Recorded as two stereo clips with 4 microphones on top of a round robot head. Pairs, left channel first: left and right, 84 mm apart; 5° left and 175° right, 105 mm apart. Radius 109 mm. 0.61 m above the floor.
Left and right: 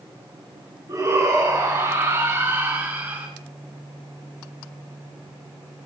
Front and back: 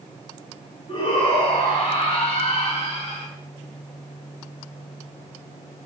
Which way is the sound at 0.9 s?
40° right.